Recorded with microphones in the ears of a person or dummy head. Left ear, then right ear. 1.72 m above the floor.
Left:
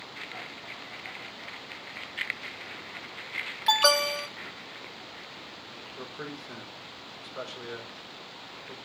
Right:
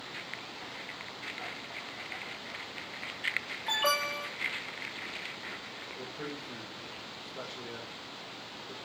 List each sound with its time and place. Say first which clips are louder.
3.7 s an alarm: left 7 dB; 70° left (ahead or behind), 2.5 m
6.0 s a man speaking: left 3 dB; 45° left (ahead or behind), 6 m